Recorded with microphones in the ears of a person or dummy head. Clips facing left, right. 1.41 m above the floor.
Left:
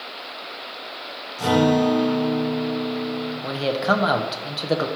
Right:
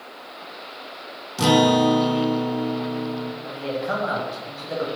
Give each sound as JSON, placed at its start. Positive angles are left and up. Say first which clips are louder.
{"t": 1.4, "sound": "a guitar", "louder": "right 1 dB", "side_deg": -75, "distance_m": 1.0}
{"t": 3.4, "sound": "a man speaking", "louder": "left 7 dB", "side_deg": 75, "distance_m": 0.8}